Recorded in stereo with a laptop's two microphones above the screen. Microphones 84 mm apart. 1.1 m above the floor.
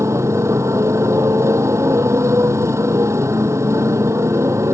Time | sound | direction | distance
0.0 | a motorcycle | 35° right (ahead or behind) | ?